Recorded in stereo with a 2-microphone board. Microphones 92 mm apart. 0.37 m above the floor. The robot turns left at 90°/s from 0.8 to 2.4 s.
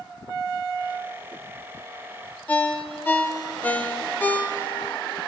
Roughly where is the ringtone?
Centre.